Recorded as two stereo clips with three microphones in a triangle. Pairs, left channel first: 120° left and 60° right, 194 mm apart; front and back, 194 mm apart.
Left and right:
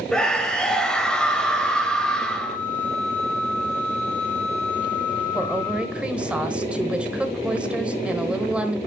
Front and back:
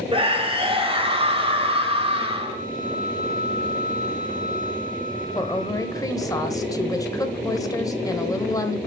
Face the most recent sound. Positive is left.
turn(degrees=10)